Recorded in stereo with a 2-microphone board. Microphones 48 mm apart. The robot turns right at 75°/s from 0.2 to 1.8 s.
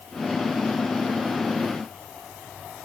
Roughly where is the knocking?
No knocking in this recording.